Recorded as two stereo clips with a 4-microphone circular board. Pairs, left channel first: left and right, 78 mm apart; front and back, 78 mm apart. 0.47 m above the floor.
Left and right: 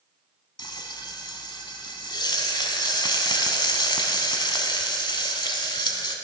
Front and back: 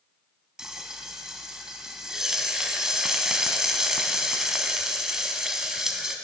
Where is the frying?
95° left, 1.0 m.